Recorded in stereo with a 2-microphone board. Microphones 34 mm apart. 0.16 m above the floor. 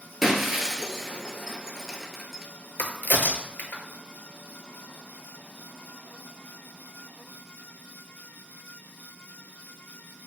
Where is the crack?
75° left (ahead or behind), 0.6 m.